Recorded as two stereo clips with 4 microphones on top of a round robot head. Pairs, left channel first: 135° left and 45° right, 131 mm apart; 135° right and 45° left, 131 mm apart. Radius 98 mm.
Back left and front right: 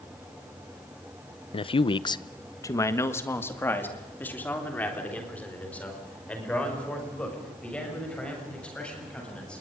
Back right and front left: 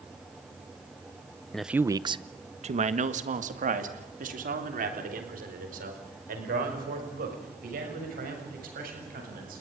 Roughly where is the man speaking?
Behind left.